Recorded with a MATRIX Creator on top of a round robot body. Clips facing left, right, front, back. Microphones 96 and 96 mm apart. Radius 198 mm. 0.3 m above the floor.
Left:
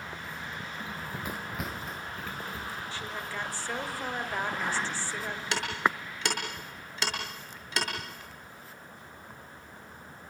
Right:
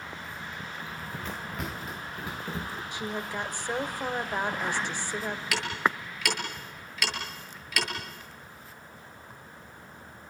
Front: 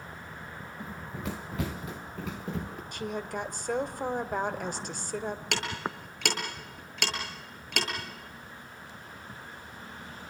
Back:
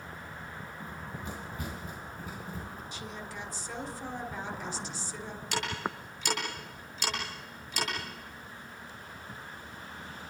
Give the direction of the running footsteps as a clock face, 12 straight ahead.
11 o'clock.